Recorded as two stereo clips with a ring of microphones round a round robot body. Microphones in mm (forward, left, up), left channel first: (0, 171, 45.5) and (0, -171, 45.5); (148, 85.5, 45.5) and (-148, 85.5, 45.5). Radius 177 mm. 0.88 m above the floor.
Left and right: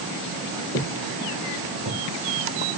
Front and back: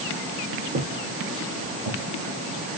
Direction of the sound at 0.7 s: 145° left.